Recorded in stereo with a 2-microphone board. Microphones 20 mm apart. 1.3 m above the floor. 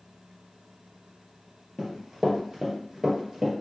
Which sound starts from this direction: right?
Running footsteps, at 1.8 s.